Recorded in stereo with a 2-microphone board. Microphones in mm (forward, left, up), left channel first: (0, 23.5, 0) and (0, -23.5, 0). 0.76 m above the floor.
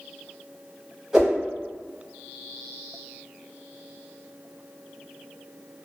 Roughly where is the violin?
I don't hear a violin.